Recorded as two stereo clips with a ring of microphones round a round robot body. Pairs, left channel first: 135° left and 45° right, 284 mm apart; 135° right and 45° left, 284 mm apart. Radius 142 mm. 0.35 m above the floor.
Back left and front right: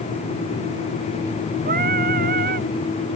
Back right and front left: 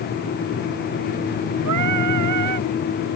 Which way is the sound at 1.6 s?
15° left.